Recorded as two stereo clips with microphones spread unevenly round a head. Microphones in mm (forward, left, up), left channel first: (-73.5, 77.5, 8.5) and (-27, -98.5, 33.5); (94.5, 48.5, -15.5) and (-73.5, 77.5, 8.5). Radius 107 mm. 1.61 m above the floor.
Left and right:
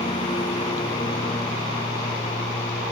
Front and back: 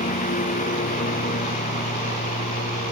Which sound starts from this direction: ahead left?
A lawn mower, at 0.0 s.